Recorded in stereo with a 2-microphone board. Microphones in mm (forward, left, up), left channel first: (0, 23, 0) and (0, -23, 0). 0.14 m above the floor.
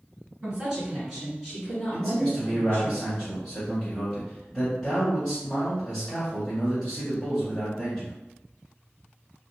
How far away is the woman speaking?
About 1.8 m.